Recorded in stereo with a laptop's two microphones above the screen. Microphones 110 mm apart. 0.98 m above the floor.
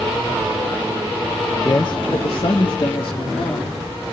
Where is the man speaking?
35° left (ahead or behind), 0.6 m; by 3.8 s 60° left (ahead or behind), 2.5 m.